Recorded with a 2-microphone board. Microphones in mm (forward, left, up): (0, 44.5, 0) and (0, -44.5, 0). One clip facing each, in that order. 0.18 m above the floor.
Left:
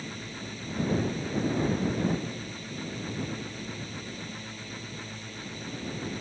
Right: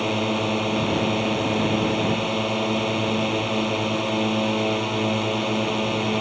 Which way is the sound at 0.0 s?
70° right (ahead or behind).